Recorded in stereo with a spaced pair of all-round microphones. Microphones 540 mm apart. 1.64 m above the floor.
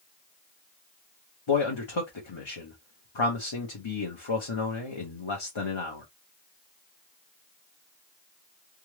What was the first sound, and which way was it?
A man speaking, 55° left (ahead or behind).